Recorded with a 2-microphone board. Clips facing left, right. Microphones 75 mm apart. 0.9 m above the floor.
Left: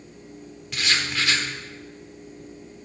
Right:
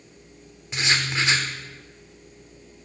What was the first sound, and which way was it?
Writing, 25° right (ahead or behind).